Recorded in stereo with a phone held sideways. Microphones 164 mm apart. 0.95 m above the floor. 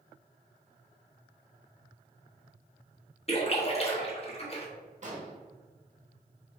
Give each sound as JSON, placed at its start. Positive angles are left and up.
{"t": 3.3, "sound": "a splash", "side_deg": 40, "distance_m": 0.8}
{"t": 5.0, "sound": "an explosion", "side_deg": -45, "distance_m": 0.9}